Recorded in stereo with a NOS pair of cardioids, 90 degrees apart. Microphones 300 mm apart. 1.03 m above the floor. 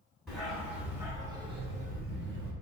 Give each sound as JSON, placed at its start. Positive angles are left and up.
{"t": 0.3, "sound": "a dog barking", "azimuth_deg": 0, "distance_m": 1.5}